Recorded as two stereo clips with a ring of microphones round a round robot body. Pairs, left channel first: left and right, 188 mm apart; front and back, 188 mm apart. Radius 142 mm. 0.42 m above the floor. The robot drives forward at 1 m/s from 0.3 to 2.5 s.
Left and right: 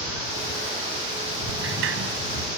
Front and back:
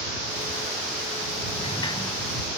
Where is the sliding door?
70° right; by 2.2 s 80° right.